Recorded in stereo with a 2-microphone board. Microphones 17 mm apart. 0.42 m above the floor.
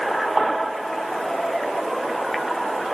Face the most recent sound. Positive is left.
No sound to turn to.